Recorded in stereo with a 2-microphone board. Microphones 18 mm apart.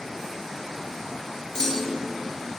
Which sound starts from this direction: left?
A clunk, at 1.6 s.